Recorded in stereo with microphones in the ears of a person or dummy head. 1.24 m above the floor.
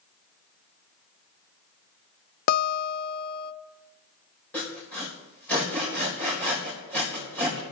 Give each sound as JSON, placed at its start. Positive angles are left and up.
{"t": 2.5, "sound": "a guitar", "side_deg": 60, "distance_m": 0.7}
{"t": 4.5, "sound": "sawing", "side_deg": 5, "distance_m": 3.5}